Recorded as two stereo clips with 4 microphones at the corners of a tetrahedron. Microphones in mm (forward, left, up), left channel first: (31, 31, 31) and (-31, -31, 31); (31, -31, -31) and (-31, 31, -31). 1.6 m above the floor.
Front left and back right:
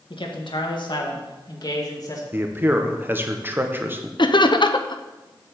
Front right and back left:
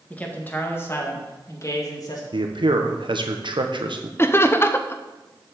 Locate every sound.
0.1 s a man speaking: 30° left, 2 m; by 2.2 s 5° right, 2.5 m
2.3 s a man speaking: 160° left, 1.3 m
4.2 s laughter: 15° left, 0.9 m